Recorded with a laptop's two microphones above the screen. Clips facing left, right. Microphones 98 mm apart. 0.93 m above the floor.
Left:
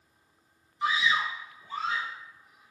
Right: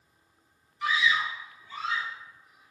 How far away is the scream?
About 0.7 m.